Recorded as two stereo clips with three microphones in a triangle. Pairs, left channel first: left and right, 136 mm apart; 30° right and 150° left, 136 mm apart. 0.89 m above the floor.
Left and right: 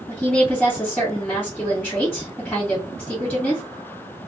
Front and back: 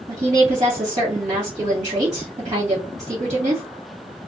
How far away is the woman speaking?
About 1.4 m.